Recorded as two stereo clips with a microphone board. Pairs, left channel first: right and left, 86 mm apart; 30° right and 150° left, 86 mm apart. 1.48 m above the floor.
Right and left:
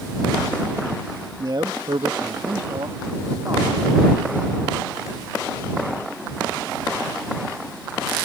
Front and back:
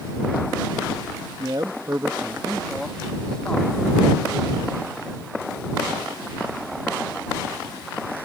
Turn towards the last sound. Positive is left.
turn(degrees=35)